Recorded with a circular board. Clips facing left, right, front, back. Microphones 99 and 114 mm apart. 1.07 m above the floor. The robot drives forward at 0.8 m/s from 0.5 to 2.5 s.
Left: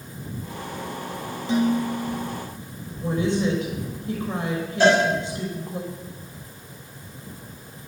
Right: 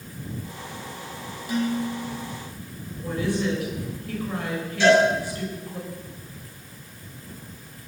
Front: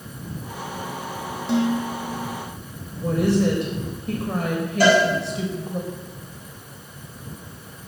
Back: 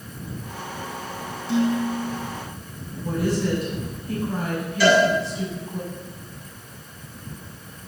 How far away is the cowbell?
About 7.5 m.